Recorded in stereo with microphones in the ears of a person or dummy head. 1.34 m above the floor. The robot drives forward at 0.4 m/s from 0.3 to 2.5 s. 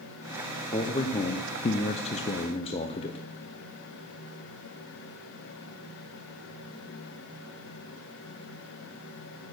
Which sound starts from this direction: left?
A man speaking, at 0.7 s.